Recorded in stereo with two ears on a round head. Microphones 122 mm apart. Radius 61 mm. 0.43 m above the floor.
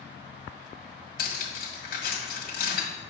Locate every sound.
1.2 s cutlery clinking: 70° left (ahead or behind), 1.7 m